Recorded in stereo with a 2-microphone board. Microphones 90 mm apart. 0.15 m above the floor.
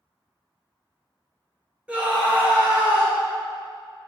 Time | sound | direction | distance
1.9 | a scream | 15° right (ahead or behind) | 1.2 m